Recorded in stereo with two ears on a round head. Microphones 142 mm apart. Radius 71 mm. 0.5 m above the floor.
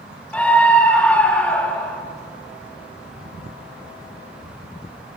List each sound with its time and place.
0.3 s a scream: 10° left (ahead or behind), 2 m